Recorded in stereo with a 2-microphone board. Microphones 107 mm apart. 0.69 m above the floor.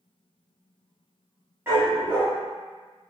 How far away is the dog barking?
About 1.4 m.